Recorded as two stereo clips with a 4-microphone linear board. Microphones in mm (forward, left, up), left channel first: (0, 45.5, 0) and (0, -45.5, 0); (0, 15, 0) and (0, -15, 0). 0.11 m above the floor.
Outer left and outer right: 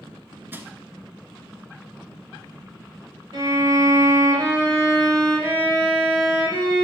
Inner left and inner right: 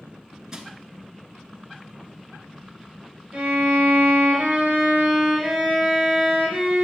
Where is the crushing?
20° right (ahead or behind), 0.9 m.